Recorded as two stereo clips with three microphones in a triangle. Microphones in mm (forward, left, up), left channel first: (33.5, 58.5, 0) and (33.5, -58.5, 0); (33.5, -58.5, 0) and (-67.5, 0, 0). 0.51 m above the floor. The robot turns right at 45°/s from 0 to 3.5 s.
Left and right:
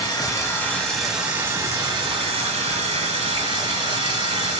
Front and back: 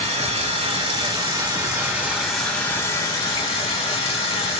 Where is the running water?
135° left, 0.8 m; by 4.6 s 65° right, 0.8 m.